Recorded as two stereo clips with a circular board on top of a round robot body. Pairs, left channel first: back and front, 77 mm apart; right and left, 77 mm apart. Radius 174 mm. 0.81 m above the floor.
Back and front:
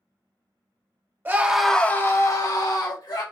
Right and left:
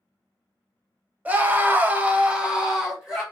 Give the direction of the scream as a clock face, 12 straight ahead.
11 o'clock.